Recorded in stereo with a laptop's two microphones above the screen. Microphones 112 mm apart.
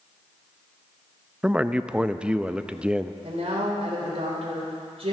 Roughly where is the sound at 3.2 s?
Right.